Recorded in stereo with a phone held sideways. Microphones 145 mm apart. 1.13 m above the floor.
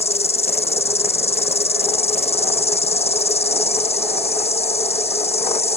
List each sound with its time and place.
0.0 s an insect: 45° left (ahead or behind)